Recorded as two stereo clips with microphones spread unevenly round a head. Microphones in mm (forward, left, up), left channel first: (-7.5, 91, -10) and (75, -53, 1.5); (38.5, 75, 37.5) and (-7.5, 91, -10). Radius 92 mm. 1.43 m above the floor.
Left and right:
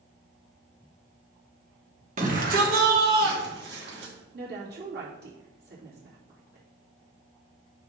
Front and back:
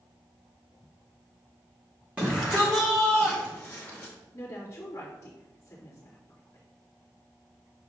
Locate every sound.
2.2 s a shout: 115° right, 1.5 m; by 4.1 s 95° right, 2.5 m
4.3 s a woman speaking: 35° right, 2.5 m